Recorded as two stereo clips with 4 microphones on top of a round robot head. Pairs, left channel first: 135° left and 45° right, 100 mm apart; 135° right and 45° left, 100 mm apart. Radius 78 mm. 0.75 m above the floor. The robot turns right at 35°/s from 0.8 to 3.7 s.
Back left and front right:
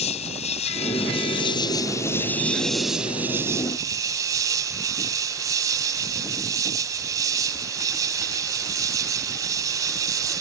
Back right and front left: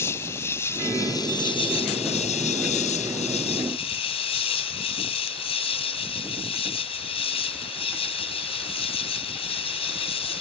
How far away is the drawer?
I don't hear a drawer.